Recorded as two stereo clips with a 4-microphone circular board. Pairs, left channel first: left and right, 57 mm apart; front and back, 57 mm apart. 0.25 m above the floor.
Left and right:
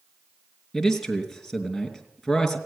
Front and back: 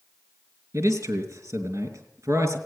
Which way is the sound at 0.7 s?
Straight behind.